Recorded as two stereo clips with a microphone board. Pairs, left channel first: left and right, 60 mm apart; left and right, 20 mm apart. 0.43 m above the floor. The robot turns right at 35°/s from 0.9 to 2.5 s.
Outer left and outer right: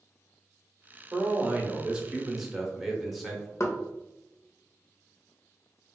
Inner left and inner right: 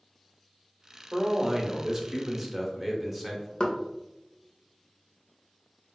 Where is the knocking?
55° left (ahead or behind), 0.7 m.